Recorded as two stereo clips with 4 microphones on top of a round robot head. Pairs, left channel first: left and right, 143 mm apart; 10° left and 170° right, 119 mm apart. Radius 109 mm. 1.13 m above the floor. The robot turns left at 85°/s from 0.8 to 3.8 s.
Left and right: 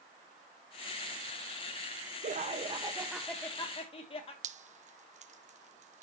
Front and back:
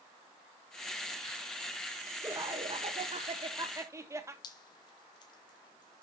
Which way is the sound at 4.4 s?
50° right.